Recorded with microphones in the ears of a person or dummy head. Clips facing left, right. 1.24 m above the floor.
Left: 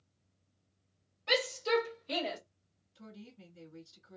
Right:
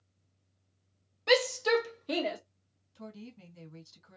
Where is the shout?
70° right (ahead or behind), 1.0 m; by 2.4 s 40° right (ahead or behind), 1.0 m.